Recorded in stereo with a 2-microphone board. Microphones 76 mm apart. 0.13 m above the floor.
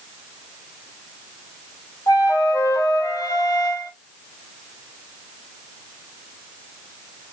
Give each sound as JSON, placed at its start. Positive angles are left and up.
{"t": 2.1, "sound": "a flute", "side_deg": 55, "distance_m": 1.0}